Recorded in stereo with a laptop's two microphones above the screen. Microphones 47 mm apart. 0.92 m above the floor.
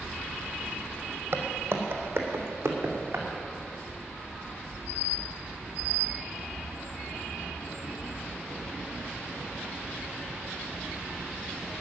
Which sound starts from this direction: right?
Footsteps, at 1.3 s.